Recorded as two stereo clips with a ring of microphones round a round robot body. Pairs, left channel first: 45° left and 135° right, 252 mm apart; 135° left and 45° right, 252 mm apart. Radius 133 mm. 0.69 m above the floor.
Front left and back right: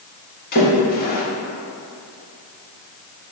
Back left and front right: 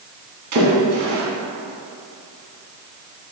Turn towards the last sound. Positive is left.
turn(degrees=-10)